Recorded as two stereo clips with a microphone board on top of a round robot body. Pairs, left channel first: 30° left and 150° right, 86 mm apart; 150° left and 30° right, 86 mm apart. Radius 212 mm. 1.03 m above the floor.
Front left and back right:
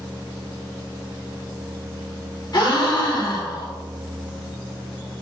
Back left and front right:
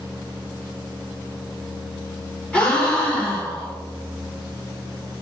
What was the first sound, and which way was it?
A gasp, 75° left.